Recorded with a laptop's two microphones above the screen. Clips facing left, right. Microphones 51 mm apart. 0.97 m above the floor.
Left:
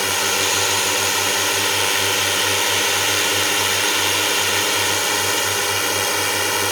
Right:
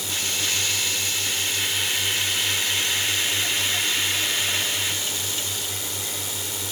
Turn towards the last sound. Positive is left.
turn(degrees=75)  # may be behind; listen again after turning